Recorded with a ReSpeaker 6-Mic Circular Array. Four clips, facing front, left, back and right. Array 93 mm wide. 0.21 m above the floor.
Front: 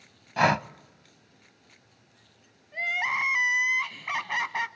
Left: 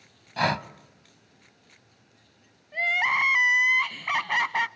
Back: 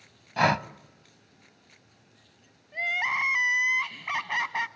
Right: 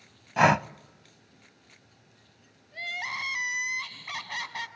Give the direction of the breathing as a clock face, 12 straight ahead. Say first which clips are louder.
Right 5 dB, front 1 dB; 3 o'clock.